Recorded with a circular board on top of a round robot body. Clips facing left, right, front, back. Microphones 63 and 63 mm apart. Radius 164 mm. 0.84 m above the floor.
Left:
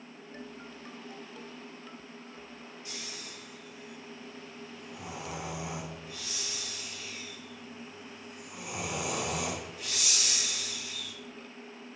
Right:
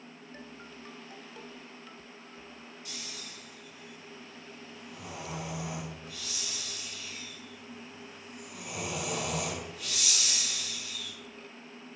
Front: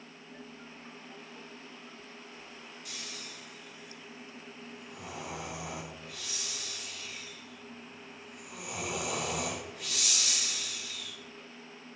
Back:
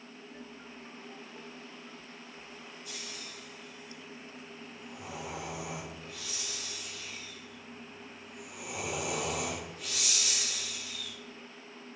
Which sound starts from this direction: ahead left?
Snoring, at 2.9 s.